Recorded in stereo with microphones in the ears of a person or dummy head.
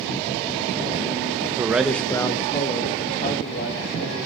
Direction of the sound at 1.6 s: 15° right (ahead or behind).